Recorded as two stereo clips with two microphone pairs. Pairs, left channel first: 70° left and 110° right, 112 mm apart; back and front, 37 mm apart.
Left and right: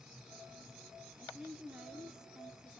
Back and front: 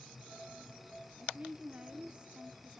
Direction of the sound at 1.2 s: 30° right.